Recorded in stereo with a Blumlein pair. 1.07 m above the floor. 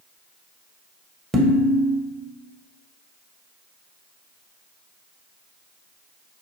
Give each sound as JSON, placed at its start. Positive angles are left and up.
{"t": 1.3, "sound": "dishes clattering", "azimuth_deg": -15, "distance_m": 0.6}